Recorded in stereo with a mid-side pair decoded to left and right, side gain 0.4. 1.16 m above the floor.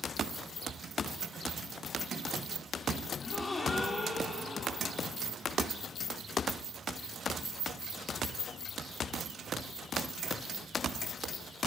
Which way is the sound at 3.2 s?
35° left.